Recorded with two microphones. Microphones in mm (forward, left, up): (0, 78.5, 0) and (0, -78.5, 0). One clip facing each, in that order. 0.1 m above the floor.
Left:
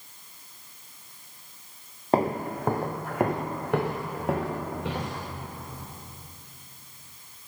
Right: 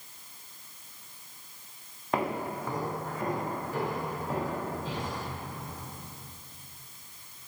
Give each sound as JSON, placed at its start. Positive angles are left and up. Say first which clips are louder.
{"t": 2.1, "sound": "footsteps", "louder": "left 6 dB", "side_deg": 35, "distance_m": 0.9}